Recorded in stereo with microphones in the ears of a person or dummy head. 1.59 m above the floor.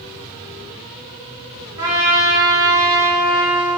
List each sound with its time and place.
1.8 s a trumpet: 25° right (ahead or behind), 1.4 m